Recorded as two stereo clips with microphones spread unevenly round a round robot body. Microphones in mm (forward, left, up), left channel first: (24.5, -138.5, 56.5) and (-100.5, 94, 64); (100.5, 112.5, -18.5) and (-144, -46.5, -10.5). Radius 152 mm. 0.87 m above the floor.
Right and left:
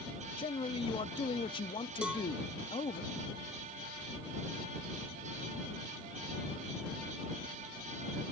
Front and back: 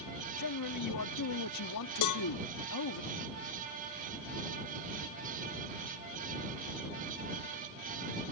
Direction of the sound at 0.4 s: 10° left.